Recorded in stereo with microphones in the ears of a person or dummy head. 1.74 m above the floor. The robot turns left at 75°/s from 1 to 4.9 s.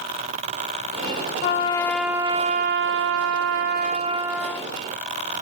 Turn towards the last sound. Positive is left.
turn(degrees=140)